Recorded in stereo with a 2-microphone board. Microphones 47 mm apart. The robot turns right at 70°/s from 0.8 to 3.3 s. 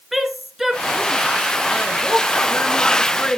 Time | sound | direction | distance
0.1 | a woman speaking | 5° right (ahead or behind) | 1.7 m